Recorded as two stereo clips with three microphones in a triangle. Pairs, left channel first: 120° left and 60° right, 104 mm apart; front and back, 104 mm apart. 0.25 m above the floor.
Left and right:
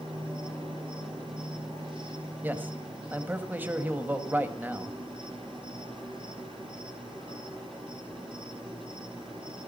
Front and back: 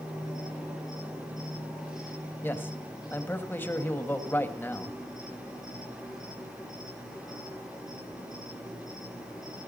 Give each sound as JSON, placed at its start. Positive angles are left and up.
{"t": 0.0, "sound": "an insect", "azimuth_deg": -95, "distance_m": 8.5}
{"t": 2.4, "sound": "a man speaking", "azimuth_deg": -25, "distance_m": 1.4}